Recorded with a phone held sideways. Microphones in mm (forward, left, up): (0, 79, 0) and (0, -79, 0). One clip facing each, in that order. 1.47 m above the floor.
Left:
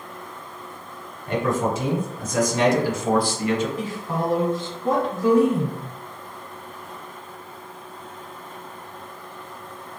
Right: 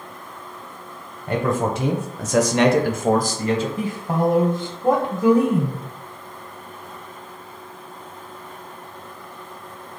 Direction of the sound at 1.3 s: 50° right (ahead or behind).